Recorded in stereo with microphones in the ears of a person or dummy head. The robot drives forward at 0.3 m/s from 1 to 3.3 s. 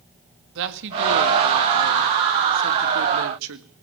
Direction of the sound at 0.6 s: 65° right (ahead or behind).